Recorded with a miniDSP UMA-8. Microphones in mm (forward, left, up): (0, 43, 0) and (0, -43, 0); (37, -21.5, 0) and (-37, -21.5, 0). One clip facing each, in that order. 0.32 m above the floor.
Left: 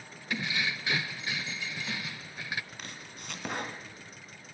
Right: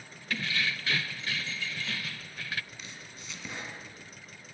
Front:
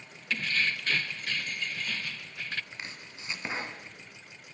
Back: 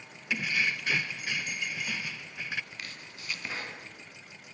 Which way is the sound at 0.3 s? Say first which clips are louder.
Even, even; 125° left.